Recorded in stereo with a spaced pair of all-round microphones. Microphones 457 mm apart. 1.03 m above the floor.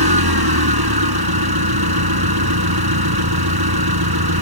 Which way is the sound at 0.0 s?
55° right (ahead or behind).